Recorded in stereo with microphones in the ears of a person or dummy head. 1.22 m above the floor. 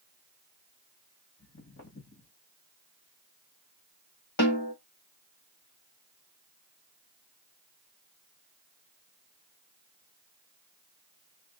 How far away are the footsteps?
About 2.5 m.